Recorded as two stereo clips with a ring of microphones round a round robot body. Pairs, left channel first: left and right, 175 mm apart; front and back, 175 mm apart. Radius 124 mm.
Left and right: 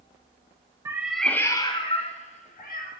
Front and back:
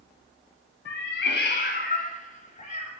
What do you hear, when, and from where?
0.8 s a cat meowing: 20° right, 0.8 m; by 2.9 s 50° left, 1.5 m